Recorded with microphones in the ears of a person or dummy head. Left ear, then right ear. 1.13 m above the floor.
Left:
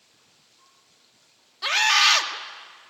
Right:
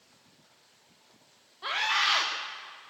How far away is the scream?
About 2 m.